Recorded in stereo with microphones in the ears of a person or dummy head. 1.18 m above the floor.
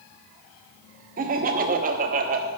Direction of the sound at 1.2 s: 45° right (ahead or behind).